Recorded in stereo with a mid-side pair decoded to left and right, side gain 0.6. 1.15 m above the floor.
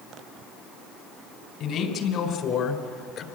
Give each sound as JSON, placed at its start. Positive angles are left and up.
{"t": 1.6, "sound": "a man speaking", "azimuth_deg": 60, "distance_m": 4.5}